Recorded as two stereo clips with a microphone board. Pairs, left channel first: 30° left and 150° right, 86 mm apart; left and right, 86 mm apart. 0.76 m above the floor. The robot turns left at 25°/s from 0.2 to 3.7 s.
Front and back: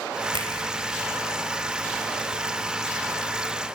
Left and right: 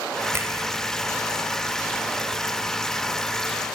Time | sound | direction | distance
0.3 | a finger snap | 150° right | 4 m